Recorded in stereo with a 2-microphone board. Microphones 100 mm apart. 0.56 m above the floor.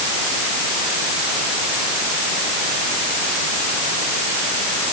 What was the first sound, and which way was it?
Only background noise.